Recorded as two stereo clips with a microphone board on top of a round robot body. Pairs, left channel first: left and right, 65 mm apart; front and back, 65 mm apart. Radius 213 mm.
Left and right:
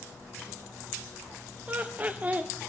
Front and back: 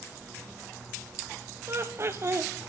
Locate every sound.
1.7 s laughter: 145° right, 1.2 m